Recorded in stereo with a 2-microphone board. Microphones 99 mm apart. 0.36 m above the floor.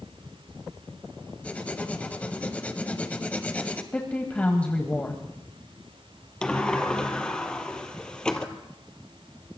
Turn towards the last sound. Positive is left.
turn(degrees=10)  # may be behind; listen again after turning